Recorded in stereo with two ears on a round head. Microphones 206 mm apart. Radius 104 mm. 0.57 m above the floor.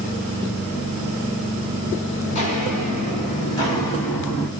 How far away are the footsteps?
About 2.5 m.